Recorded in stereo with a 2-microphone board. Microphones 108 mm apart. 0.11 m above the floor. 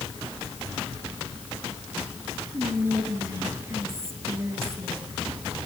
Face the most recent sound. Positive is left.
turn(degrees=-25)  # may be behind; listen again after turning